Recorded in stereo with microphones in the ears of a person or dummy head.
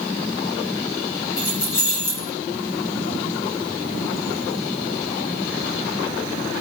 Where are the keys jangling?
55° left (ahead or behind), 0.9 m.